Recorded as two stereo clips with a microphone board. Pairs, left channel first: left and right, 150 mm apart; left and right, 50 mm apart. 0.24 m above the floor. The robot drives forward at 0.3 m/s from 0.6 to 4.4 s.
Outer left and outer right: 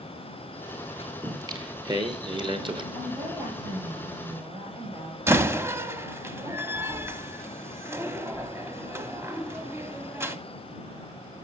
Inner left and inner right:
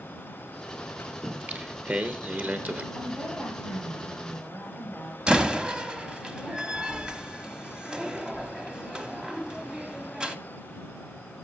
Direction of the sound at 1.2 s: 25° right (ahead or behind).